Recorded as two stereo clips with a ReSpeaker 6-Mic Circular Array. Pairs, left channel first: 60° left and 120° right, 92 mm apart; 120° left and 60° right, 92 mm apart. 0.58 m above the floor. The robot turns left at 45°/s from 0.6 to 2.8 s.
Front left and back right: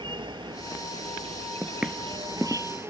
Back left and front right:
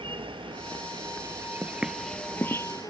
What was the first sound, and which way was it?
An insect, 85° right.